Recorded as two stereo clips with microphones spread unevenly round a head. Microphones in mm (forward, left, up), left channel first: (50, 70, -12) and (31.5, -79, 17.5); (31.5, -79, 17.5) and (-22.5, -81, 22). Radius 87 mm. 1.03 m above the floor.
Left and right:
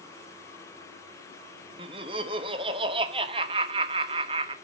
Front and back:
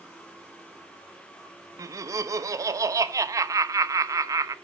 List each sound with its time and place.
1.8 s laughter: 160° right, 1.0 m